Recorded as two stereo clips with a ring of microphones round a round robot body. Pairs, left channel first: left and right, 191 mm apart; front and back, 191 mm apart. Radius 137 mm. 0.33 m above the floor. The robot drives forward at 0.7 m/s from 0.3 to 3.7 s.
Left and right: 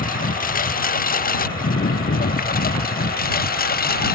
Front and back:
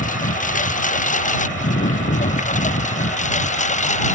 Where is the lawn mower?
50° left.